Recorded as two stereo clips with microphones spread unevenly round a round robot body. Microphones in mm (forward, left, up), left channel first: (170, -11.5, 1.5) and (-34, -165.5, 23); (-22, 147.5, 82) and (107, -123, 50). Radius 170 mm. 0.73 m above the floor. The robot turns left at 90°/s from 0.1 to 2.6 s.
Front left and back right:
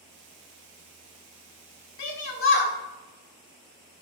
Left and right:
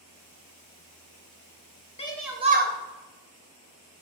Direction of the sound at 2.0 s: 45° left.